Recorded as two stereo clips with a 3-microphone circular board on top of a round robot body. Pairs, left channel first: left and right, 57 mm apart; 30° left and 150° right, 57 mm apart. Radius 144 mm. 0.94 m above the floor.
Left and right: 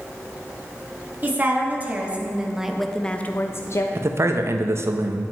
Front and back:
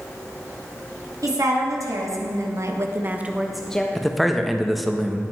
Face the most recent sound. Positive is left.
turn(degrees=-60)